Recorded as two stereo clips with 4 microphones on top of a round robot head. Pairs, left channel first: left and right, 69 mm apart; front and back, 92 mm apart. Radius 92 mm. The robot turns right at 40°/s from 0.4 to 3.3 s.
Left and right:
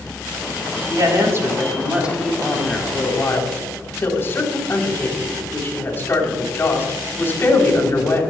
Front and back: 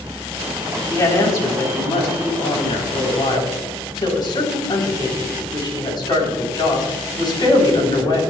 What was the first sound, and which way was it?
A woman speaking, 60° right.